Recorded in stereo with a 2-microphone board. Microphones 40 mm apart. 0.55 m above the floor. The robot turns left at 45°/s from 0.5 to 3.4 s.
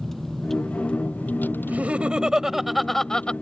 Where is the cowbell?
No cowbell in this recording.